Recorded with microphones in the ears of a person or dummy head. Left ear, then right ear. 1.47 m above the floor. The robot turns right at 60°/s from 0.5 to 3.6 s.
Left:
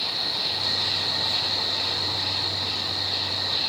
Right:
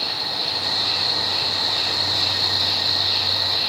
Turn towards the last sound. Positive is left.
turn(degrees=-15)